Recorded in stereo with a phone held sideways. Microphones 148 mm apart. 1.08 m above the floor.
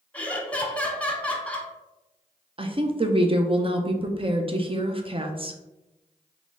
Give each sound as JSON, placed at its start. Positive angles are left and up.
{"t": 0.1, "sound": "laughter", "side_deg": 10, "distance_m": 1.1}
{"t": 2.6, "sound": "a woman speaking", "side_deg": -35, "distance_m": 0.6}